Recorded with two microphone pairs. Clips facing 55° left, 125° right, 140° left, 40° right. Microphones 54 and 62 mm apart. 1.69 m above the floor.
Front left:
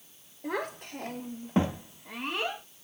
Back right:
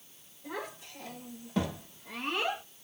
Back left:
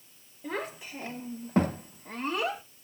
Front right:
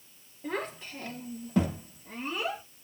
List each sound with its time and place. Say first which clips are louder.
0.4 s a child speaking: front left 6 dB, front right 1 dB; 55° left, 1.0 m; by 2.6 s 155° left, 1.1 m